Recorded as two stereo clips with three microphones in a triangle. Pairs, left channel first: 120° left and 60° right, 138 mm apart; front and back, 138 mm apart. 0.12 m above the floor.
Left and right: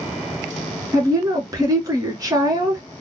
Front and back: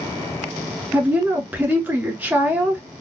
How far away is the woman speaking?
About 1.5 m.